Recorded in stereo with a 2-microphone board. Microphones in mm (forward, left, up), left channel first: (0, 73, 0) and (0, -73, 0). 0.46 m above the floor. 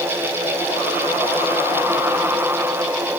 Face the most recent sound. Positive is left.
No sound to turn to.